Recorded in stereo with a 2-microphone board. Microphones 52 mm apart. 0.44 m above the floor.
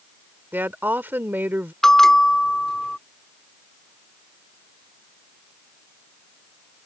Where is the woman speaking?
40° right (ahead or behind).